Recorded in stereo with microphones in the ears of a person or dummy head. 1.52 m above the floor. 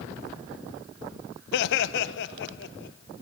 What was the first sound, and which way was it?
Laughter, 65° left (ahead or behind).